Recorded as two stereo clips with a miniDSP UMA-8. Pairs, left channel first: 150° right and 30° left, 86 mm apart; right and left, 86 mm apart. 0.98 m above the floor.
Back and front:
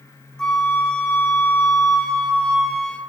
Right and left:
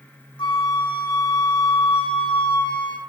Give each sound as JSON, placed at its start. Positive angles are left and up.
{"t": 0.4, "sound": "a flute", "azimuth_deg": -70, "distance_m": 1.4}